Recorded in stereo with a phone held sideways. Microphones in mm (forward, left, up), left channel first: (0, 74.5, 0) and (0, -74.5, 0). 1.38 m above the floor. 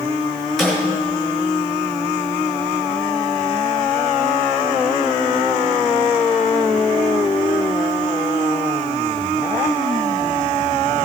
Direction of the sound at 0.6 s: Centre (ahead or behind).